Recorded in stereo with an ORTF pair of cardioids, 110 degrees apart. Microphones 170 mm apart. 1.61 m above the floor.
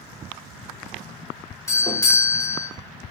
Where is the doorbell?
20° left, 1.4 m.